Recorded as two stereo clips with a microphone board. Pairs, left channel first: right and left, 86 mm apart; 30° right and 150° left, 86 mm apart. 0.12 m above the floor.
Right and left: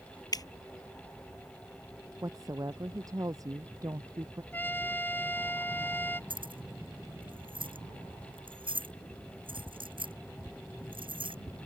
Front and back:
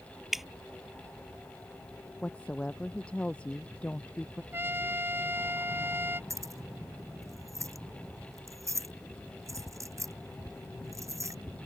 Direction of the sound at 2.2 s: 45° left.